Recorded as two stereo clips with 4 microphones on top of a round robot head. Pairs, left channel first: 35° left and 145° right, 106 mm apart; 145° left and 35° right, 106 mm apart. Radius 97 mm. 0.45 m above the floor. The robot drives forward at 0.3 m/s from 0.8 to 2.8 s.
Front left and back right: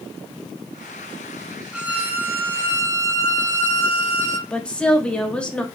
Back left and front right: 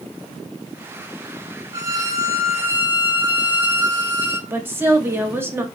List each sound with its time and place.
1.7 s a violin: 75° right, 1.2 m; by 4.4 s 95° right, 1.2 m
4.5 s a woman speaking: 30° right, 1.3 m